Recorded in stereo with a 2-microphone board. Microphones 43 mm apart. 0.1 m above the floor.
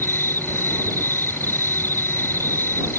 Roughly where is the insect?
Left.